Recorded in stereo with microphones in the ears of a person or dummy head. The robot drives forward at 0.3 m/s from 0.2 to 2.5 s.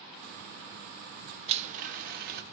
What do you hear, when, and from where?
1.5 s a blender: 40° right (ahead or behind), 0.6 m; by 2.4 s 45° right (ahead or behind), 0.5 m